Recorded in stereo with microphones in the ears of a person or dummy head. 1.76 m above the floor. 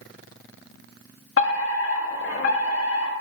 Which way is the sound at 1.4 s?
75° left (ahead or behind).